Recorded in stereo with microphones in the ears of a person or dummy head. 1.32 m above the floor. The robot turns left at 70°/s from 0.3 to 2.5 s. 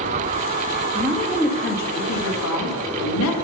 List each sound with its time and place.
0.9 s a woman speaking: 165° right, 2 m; by 3.4 s 85° left, 2 m